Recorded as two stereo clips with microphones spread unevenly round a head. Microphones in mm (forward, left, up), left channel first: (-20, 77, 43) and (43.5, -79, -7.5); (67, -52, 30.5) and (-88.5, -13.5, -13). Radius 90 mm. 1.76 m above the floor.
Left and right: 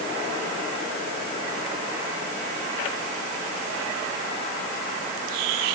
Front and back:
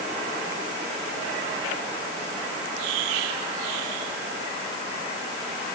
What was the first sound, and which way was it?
Only background noise.